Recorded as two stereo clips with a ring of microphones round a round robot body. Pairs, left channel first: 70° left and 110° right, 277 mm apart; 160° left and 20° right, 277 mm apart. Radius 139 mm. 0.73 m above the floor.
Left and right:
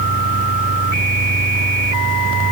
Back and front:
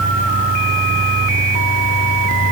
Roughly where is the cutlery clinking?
I don't hear cutlery clinking.